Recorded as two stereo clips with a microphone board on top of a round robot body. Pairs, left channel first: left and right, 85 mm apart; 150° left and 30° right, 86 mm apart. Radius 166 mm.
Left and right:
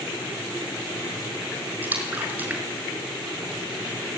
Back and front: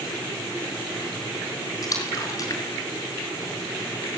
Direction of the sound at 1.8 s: 160° right.